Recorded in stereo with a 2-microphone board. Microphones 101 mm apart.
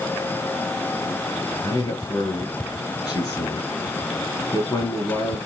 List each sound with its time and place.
1.6 s a man speaking: 40° left (ahead or behind), 5 m